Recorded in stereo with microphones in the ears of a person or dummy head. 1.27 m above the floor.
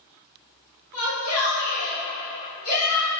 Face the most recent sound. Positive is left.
turn(degrees=75)  # may be behind; listen again after turning